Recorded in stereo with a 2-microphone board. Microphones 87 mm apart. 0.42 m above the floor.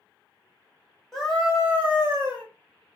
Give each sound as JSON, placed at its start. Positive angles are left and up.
{"t": 1.1, "sound": "a scream", "side_deg": 5, "distance_m": 1.3}